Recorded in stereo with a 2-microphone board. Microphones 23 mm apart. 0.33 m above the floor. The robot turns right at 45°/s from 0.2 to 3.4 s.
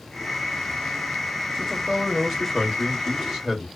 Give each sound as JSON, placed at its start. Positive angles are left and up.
{"t": 1.6, "sound": "a man speaking", "side_deg": -5, "distance_m": 0.9}